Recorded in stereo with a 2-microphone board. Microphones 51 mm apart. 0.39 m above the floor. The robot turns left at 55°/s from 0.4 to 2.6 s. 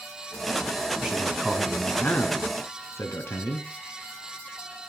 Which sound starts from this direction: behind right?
A man speaking, at 1.0 s.